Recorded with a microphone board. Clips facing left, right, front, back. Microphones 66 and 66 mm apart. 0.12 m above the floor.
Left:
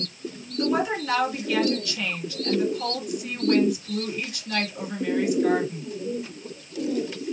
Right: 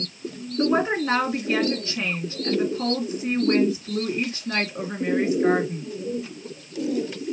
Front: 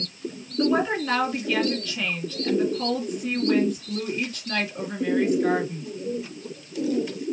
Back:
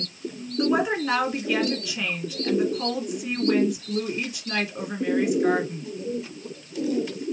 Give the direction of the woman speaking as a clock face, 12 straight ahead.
4 o'clock.